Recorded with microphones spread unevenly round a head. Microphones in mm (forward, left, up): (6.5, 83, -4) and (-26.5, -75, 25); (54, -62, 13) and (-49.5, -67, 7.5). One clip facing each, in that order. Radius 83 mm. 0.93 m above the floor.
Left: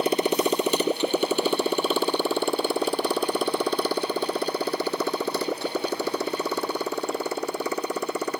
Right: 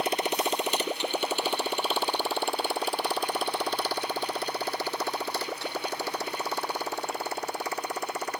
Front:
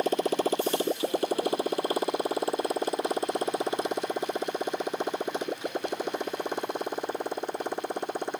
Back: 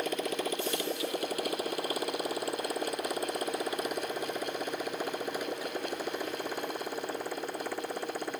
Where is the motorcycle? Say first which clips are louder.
Left 6 dB, front 7 dB; 75° left; by 8.4 s 80° left.